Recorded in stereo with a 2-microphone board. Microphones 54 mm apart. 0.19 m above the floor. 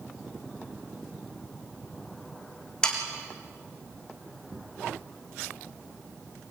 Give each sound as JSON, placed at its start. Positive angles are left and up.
{"t": 2.8, "sound": "sawing", "side_deg": 15, "distance_m": 4.0}